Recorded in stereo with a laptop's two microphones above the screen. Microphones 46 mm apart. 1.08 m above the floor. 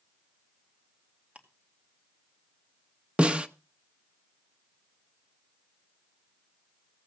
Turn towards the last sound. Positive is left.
turn(degrees=-25)  # may be behind; listen again after turning